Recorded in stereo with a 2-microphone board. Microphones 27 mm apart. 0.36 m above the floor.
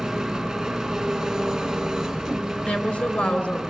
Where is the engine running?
20° right (ahead or behind), 2.5 m.